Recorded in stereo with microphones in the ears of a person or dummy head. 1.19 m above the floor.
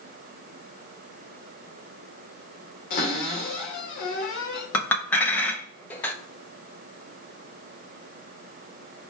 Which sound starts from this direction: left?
A cupboard door, at 2.9 s.